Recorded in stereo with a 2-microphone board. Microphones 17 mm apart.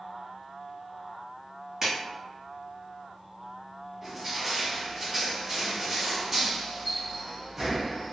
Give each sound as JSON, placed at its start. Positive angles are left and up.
{"t": 1.8, "sound": "a clap", "side_deg": -30, "distance_m": 1.5}
{"t": 4.0, "sound": "crushing", "side_deg": -20, "distance_m": 1.2}